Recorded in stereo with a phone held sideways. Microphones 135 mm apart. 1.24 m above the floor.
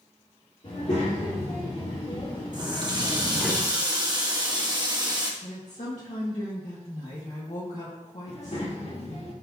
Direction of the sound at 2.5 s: 35° right (ahead or behind).